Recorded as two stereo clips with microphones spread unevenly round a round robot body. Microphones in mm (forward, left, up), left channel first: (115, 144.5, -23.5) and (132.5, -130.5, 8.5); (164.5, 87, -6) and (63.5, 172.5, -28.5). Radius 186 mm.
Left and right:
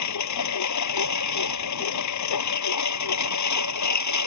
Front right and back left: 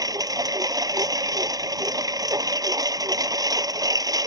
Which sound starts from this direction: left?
A lawn mower, at 0.0 s.